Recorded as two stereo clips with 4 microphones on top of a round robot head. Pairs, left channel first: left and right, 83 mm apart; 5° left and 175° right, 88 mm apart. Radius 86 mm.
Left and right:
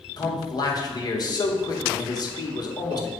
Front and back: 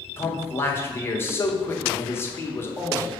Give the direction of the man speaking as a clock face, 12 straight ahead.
10 o'clock.